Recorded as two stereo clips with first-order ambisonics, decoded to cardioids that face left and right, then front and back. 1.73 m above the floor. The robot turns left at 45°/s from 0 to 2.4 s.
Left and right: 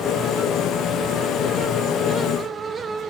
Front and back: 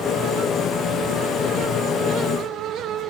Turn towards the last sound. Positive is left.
No sound to turn to.